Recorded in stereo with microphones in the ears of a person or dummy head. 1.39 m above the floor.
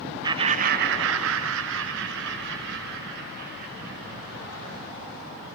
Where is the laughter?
20° right (ahead or behind), 0.6 m; by 4.6 s 55° right (ahead or behind), 3 m.